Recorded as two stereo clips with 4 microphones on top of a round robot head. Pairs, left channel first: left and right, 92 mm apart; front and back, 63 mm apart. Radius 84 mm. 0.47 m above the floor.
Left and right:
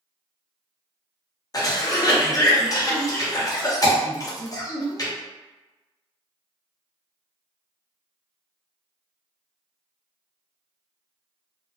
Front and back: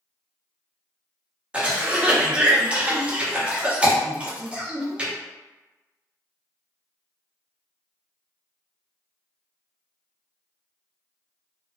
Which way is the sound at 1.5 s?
115° left.